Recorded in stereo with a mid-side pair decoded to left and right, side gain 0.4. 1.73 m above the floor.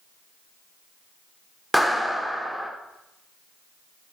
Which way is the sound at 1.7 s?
Straight ahead.